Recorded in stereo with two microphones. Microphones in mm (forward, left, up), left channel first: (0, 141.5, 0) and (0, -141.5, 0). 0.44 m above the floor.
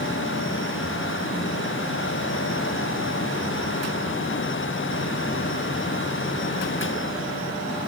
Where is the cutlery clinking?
No cutlery clinking in this recording.